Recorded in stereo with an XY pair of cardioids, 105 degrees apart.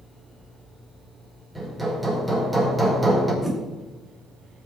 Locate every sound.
1.6 s hammering: 10° right, 5 m
3.4 s a whoosh: 15° right, 3.5 m